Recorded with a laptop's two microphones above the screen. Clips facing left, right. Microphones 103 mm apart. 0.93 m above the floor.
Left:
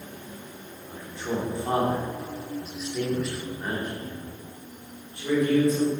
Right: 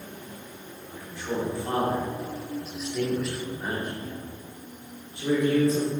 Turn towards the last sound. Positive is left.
turn(degrees=-30)  # may be behind; listen again after turning